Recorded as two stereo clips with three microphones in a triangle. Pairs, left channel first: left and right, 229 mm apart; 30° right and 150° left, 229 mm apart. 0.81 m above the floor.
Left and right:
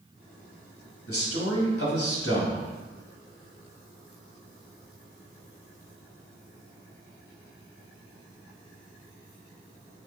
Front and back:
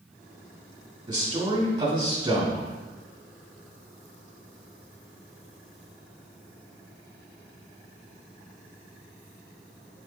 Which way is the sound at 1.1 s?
80° left.